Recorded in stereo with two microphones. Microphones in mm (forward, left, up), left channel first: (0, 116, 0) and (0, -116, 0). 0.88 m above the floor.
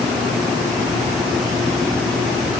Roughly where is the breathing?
I don't hear breathing.